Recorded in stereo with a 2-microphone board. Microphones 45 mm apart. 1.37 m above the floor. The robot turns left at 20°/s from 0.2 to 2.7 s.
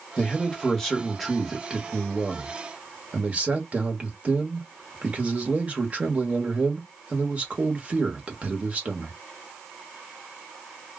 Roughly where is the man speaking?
Ahead left.